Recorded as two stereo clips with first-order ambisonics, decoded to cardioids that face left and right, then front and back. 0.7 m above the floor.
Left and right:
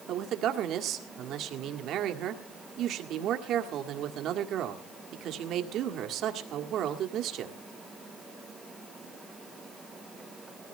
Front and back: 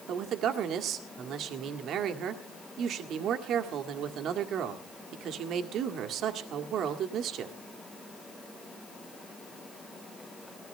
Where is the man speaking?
135° right, 1.7 m.